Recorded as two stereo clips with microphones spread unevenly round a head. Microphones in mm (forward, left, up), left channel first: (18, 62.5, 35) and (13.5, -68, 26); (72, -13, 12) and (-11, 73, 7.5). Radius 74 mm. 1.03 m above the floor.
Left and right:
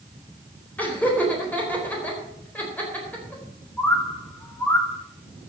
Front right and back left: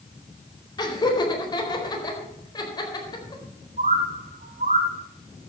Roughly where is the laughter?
Ahead.